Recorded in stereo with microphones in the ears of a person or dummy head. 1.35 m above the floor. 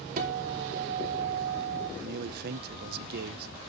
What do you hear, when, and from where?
0.2 s a guitar: 45° right (ahead or behind), 2.5 m
2.0 s a man speaking: 55° right (ahead or behind), 0.7 m